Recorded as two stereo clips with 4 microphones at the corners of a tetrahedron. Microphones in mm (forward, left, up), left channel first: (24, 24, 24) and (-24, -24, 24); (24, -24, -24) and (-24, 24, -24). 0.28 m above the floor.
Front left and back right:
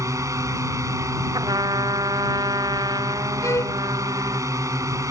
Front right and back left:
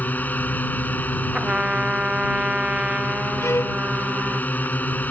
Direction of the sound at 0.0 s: 105° right.